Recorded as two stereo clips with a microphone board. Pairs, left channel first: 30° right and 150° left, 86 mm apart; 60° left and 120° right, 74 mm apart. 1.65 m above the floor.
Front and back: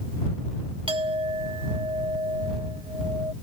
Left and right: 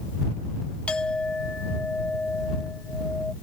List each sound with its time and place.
0.9 s a clink: 140° left